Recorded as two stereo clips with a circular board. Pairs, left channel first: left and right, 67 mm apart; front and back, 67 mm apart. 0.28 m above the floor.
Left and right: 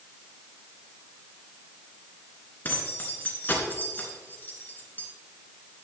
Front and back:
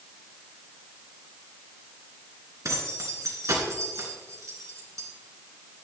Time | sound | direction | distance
2.6 | keys jangling | 150° left | 2.5 m